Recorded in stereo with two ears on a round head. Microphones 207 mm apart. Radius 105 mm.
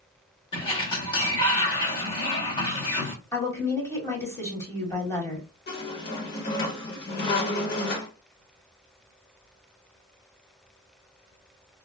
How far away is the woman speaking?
About 1.5 m.